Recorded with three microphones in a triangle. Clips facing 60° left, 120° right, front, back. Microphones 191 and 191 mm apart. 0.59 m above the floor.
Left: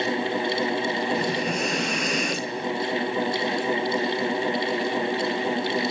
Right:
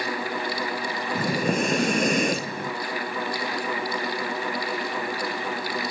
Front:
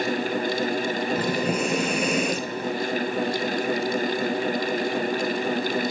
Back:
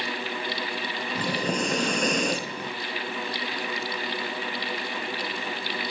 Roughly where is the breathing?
Right.